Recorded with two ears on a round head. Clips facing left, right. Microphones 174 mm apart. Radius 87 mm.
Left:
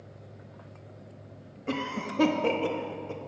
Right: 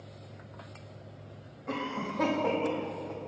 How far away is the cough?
About 0.9 m.